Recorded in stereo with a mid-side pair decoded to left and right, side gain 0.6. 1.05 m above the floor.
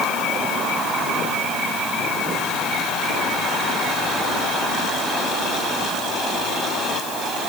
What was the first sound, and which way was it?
Only background noise.